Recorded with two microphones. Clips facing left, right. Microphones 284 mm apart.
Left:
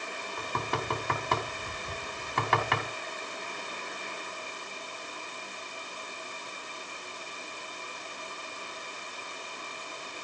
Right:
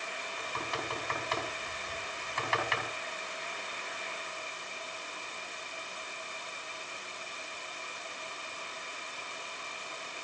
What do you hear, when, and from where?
0.4 s knocking: 70° left (ahead or behind), 2.5 m